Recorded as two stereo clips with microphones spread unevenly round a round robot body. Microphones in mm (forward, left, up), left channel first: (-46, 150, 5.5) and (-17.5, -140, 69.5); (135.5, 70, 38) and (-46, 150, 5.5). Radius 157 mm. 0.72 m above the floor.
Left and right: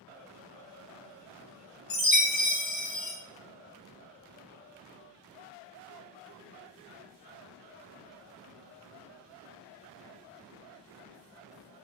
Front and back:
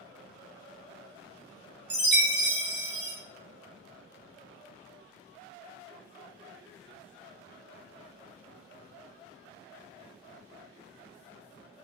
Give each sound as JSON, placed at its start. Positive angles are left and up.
{"t": 1.9, "sound": "a chime", "azimuth_deg": 125, "distance_m": 1.1}